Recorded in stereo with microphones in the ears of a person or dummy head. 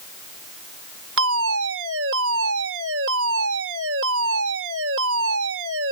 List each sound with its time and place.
1.2 s a fire alarm: 70° right (ahead or behind)